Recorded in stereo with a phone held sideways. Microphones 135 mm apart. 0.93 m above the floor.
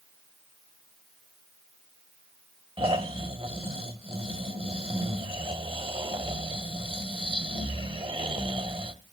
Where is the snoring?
40° right (ahead or behind), 1.0 m.